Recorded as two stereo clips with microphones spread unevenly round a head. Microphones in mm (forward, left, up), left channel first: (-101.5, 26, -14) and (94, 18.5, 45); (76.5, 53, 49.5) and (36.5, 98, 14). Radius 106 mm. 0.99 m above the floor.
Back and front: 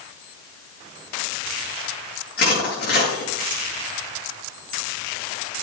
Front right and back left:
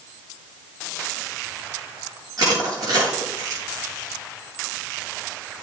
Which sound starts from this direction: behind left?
Crushing, at 2.4 s.